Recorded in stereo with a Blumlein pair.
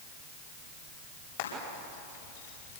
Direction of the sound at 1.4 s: 55° left.